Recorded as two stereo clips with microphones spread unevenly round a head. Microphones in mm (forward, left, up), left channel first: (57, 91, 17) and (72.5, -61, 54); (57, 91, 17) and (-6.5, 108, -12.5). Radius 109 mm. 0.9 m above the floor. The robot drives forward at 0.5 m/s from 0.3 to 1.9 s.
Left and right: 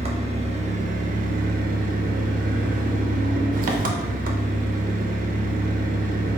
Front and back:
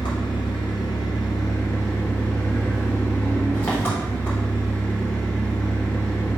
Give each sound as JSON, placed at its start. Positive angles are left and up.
{"t": 0.0, "sound": "an engine running", "azimuth_deg": -30, "distance_m": 1.0}